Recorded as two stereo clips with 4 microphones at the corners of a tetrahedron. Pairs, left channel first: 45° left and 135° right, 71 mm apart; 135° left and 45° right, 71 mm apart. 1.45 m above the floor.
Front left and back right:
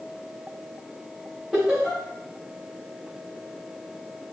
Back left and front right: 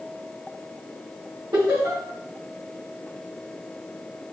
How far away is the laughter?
About 1.7 m.